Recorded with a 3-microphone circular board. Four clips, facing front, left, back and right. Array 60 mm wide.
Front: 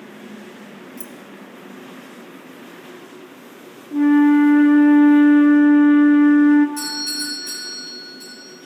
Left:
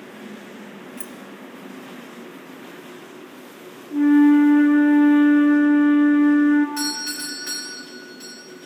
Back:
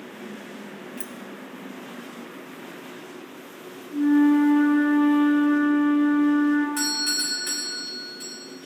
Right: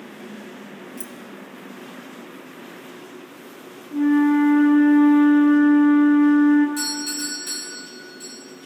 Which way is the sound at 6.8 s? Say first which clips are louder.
Even, even; 140° left.